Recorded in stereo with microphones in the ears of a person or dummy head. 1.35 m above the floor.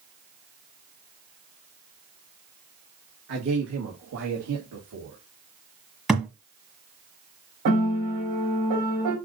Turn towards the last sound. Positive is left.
turn(degrees=-70)  # may be behind; listen again after turning